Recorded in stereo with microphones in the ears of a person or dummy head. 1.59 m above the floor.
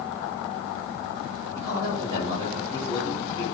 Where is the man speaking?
30° right (ahead or behind), 8 m.